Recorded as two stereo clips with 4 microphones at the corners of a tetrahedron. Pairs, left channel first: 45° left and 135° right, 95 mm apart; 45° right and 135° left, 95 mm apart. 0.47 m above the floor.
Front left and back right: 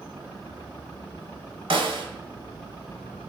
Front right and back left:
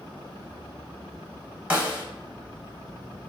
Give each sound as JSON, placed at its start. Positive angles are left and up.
{"t": 1.7, "sound": "a snare drum", "azimuth_deg": -155, "distance_m": 0.9}